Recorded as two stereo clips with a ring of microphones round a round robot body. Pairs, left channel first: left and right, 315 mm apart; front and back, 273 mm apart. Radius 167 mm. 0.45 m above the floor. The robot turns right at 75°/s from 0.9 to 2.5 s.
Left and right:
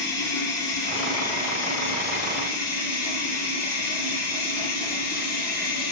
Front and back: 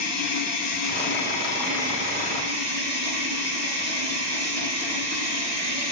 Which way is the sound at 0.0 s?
35° left.